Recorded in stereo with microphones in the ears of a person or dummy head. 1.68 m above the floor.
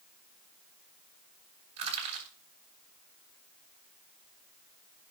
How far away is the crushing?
About 7.5 m.